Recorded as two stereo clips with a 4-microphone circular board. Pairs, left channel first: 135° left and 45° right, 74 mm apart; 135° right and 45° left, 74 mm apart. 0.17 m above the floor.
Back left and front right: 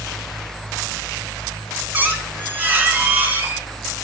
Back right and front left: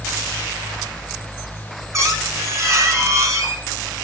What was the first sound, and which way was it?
A squeak, 15° left.